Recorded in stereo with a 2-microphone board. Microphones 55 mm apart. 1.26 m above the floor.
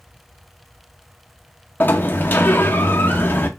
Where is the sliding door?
35° left (ahead or behind), 0.8 m.